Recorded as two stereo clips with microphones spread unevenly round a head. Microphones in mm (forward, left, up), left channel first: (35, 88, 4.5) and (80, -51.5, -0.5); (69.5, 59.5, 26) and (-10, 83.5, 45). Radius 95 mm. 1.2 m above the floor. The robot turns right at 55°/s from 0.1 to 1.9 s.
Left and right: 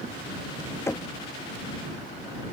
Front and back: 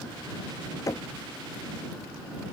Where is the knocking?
35° left; by 1.1 s 50° left.